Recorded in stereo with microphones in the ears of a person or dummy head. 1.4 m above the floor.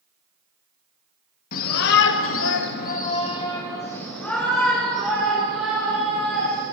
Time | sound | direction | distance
1.5 | a shout | 50° left (ahead or behind) | 1.0 m